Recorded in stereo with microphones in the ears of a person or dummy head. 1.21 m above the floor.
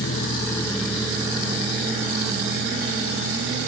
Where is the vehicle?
60° left (ahead or behind); by 3.7 s 35° right (ahead or behind).